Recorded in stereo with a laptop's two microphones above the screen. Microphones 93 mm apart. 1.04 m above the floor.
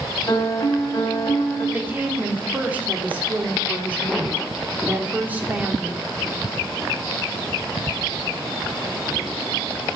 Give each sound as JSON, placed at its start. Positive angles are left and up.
{"t": 0.3, "sound": "a piano", "side_deg": 45, "distance_m": 2.5}
{"t": 1.7, "sound": "a woman speaking", "side_deg": -20, "distance_m": 3.0}